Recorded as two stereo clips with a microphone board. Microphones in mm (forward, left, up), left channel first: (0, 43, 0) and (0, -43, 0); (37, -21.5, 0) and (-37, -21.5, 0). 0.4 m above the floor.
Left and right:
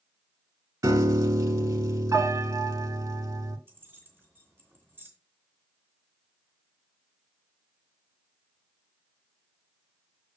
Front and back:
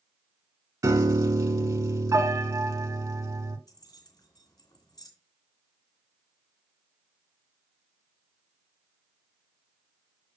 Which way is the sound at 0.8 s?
140° right.